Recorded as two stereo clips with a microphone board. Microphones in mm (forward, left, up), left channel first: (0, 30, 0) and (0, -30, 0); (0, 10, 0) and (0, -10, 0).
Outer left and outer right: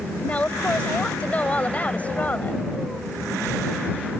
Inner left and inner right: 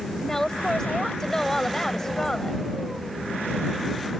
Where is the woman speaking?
25° left (ahead or behind).